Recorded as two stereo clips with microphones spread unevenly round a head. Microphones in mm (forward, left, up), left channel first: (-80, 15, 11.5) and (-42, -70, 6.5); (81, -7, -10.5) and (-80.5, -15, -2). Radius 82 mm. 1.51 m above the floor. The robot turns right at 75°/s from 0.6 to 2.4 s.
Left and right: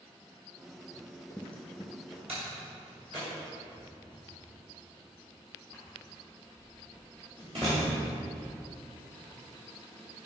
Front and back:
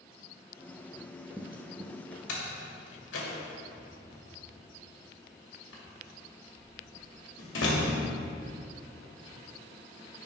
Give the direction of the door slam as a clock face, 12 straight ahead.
12 o'clock.